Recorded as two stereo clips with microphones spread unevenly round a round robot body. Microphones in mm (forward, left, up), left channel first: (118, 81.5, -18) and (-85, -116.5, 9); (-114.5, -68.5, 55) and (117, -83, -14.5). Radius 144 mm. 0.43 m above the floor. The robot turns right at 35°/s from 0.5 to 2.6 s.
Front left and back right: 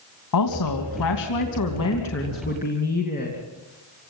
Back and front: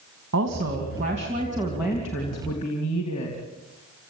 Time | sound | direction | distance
0.3 | a woman speaking | 30° left | 3 m